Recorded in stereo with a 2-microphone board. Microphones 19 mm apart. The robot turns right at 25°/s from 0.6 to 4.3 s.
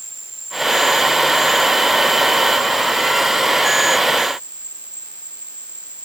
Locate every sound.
0.0 s an insect: straight behind; by 6.0 s 90° right